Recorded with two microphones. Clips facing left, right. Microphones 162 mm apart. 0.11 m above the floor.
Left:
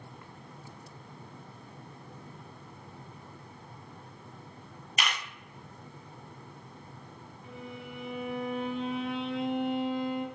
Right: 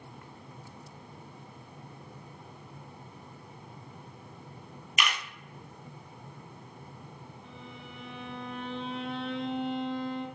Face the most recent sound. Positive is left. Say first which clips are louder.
# left 7 dB
turn(degrees=5)  # may be behind; listen again after turning